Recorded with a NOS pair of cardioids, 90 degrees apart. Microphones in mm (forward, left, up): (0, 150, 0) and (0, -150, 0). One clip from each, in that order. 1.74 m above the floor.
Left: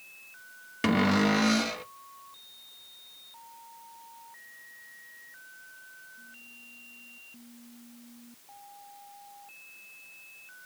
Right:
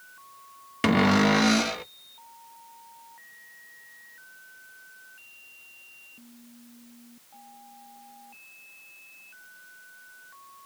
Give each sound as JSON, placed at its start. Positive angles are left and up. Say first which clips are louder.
{"t": 0.8, "sound": "a cupboard door", "louder": "right 4 dB", "azimuth_deg": -20, "distance_m": 0.5}